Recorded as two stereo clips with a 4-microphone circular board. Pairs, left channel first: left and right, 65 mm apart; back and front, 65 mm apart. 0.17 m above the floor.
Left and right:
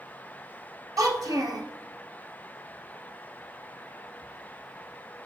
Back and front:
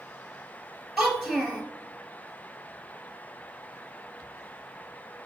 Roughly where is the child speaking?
Right.